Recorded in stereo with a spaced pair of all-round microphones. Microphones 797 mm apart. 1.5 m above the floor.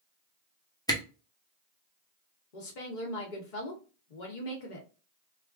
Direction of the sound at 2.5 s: 70° left (ahead or behind).